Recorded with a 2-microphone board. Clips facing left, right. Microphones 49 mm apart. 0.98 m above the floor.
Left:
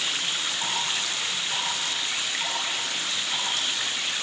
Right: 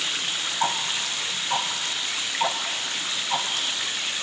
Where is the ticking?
45° right (ahead or behind), 2 m.